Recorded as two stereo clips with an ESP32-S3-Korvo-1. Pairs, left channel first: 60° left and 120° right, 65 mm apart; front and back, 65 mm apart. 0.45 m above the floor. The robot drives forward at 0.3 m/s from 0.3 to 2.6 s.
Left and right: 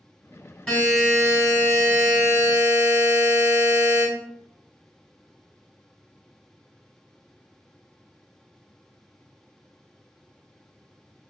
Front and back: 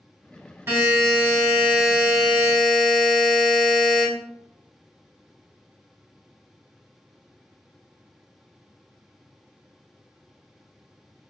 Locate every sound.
0.7 s a buzzer: 140° left, 1.7 m; by 4.0 s 150° left, 2 m